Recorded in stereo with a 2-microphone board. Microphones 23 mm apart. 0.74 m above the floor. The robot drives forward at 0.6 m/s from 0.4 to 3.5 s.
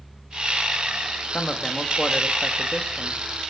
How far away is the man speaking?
About 1.4 m.